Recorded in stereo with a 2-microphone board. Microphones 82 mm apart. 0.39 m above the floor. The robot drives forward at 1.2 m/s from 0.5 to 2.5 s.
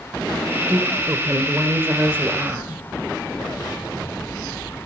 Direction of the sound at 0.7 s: 20° right (ahead or behind).